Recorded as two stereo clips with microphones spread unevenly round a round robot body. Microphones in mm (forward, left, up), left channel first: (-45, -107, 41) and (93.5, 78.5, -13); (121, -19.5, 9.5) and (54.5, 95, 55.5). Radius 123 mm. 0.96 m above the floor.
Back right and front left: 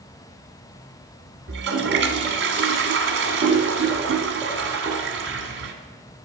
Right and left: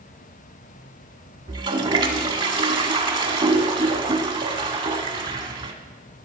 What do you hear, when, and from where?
1.5 s a toilet flushing: 100° left, 1.3 m